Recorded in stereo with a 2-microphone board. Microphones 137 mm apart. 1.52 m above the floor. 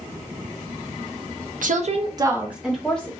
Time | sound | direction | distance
1.6 | a woman speaking | 70° right (ahead or behind) | 0.9 m